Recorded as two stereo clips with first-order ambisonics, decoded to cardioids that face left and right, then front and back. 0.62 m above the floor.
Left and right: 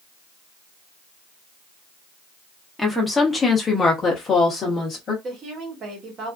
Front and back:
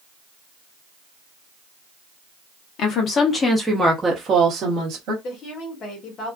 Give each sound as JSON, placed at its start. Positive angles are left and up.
{"t": 2.8, "sound": "a woman speaking", "azimuth_deg": 5, "distance_m": 0.8}
{"t": 5.2, "sound": "a woman speaking", "azimuth_deg": -45, "distance_m": 1.2}